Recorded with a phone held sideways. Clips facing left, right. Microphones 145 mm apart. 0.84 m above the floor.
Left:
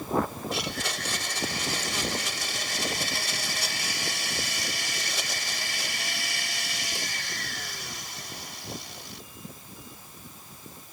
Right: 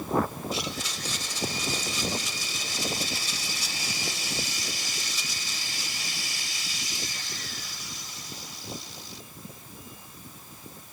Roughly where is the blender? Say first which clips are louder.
Left 1 dB; left.